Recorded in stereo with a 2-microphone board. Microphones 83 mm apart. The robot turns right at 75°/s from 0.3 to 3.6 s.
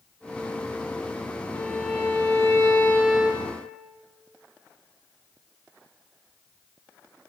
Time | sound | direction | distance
1.5 | a violin | 45° left | 0.8 m